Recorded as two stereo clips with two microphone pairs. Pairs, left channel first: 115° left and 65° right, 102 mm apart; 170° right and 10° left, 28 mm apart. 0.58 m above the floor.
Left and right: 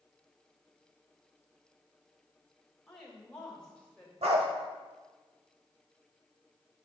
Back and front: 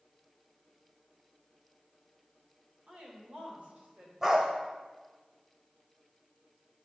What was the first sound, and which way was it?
A woman speaking, 30° left.